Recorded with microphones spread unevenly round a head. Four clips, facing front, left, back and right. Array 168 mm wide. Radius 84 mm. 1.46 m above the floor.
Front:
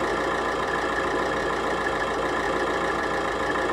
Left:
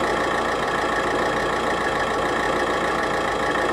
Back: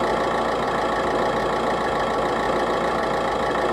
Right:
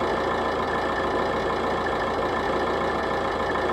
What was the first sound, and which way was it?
An engine running, straight behind.